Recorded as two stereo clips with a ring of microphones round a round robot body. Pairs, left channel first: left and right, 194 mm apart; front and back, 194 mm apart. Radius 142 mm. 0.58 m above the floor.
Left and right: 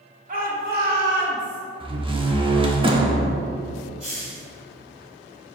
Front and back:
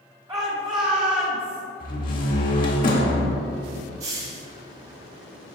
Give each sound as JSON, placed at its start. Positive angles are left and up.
{"t": 0.3, "sound": "a shout", "azimuth_deg": -115, "distance_m": 1.8}
{"t": 1.8, "sound": "a door slam", "azimuth_deg": -35, "distance_m": 1.2}
{"t": 4.0, "sound": "a hiss", "azimuth_deg": -155, "distance_m": 1.3}